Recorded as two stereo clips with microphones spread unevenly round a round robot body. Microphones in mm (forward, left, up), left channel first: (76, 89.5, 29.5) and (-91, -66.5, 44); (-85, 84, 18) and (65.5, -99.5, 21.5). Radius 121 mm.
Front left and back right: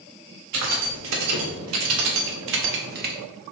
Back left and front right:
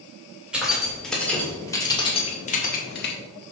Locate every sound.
0.5 s keys jangling: 135° right, 2 m; by 3.1 s 170° left, 1.3 m